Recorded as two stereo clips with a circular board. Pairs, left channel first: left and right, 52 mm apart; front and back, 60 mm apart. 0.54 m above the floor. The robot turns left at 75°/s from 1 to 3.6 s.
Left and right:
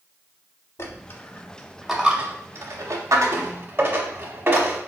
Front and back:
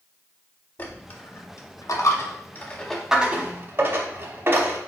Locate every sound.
0.8 s a dropped coin: 60° left, 0.8 m; by 4.8 s 135° right, 0.8 m